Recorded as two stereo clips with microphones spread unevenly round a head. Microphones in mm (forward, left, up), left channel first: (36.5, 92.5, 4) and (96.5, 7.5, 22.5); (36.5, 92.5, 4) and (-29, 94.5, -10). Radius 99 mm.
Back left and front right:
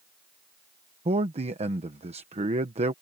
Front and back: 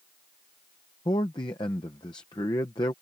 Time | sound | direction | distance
1.1 | a man speaking | 40° right | ?